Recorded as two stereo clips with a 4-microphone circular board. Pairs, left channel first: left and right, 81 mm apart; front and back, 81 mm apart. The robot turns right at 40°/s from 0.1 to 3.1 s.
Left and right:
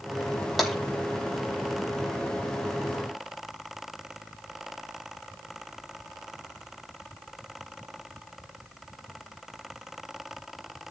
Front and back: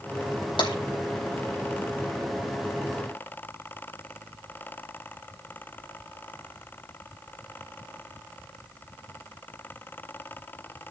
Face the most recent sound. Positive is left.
turn(degrees=100)